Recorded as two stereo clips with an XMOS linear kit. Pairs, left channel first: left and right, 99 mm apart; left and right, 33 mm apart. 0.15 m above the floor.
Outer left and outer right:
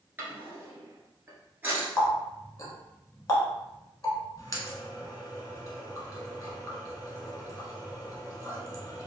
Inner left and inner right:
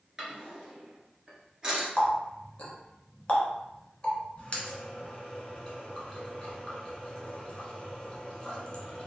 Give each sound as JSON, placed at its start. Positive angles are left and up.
{"t": 0.2, "sound": "a drawer", "side_deg": -20, "distance_m": 1.0}
{"t": 2.0, "sound": "a running tap", "side_deg": 35, "distance_m": 0.8}